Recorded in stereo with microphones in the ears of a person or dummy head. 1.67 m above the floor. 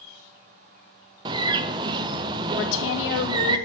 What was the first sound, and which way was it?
A bird, 25° right (ahead or behind).